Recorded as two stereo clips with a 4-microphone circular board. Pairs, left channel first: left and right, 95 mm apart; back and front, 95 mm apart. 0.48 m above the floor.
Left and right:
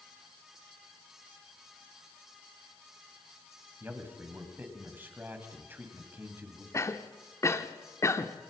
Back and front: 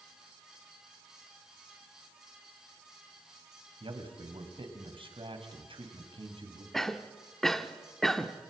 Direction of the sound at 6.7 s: 100° left.